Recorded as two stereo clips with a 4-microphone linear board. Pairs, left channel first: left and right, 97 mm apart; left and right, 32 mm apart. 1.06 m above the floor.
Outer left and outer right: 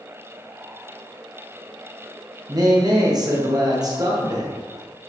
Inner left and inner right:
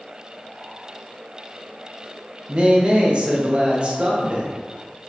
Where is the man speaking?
40° right (ahead or behind), 0.9 m.